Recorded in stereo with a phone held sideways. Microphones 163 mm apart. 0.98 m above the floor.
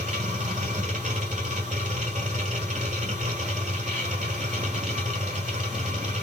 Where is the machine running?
50° right (ahead or behind), 1.3 m.